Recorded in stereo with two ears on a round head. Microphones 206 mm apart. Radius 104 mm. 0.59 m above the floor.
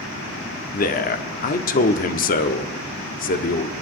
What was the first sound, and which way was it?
A man speaking, 40° left (ahead or behind).